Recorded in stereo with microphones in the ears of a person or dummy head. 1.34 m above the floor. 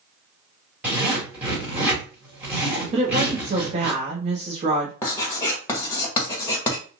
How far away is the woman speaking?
About 0.7 m.